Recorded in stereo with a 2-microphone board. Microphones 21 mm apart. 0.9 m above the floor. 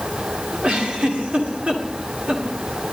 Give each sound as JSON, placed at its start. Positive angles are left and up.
{"t": 0.6, "sound": "a giggle", "side_deg": -65, "distance_m": 1.9}